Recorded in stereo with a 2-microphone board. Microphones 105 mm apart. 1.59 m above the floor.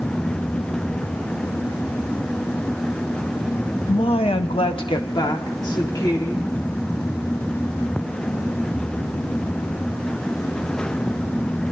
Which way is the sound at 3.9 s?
55° left (ahead or behind).